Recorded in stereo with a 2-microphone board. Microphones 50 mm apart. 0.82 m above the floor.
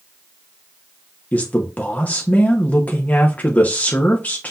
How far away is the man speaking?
About 1.0 m.